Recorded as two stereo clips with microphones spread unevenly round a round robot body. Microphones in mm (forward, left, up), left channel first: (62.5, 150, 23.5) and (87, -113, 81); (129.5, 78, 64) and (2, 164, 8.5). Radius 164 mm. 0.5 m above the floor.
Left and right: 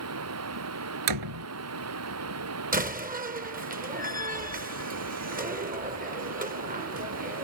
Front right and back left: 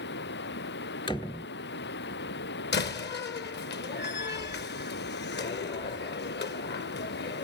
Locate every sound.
0.0 s running water: 55° right
1.1 s a door slam: 110° right
2.7 s a door slam: 20° right